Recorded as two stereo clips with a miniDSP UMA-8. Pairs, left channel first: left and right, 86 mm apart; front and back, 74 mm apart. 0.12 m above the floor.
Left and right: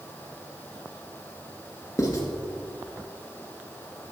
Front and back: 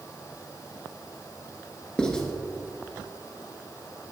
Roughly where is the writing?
Left.